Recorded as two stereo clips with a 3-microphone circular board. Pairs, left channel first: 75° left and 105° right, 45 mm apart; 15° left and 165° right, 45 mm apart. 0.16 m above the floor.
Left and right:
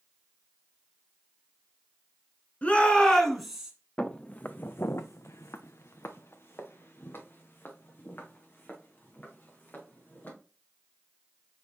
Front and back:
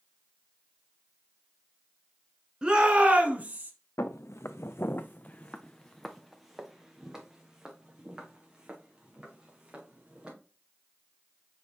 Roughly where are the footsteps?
Ahead.